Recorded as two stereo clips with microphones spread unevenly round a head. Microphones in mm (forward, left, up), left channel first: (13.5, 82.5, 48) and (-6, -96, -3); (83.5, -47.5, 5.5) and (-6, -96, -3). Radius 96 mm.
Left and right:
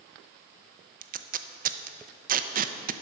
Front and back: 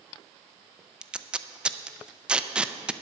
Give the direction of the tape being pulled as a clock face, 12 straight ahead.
2 o'clock.